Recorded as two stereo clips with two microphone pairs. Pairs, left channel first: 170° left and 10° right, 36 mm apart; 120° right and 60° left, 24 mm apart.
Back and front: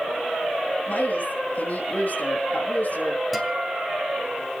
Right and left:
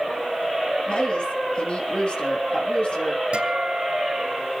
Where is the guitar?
80° left, 2.5 m.